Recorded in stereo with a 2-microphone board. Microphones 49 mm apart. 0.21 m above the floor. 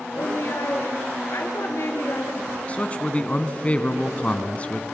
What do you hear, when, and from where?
0.1 s a woman speaking: 65° left (ahead or behind), 4 m
2.7 s a man speaking: 25° left (ahead or behind), 1.9 m